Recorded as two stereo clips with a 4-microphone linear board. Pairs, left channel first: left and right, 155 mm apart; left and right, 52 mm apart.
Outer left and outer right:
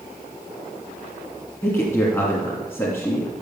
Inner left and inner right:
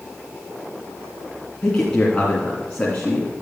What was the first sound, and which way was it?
A man speaking, 15° left (ahead or behind).